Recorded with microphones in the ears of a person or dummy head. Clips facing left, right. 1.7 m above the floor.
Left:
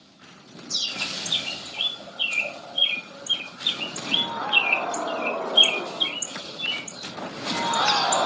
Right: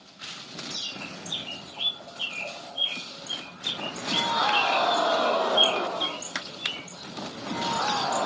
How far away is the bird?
About 2 m.